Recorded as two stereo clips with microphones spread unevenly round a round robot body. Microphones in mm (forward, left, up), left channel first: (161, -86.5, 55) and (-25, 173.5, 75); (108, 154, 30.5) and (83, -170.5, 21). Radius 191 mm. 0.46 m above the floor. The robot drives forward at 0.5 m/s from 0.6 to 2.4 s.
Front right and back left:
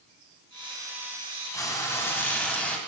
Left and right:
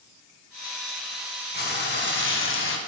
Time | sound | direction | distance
1.5 | frying | 25° left | 2 m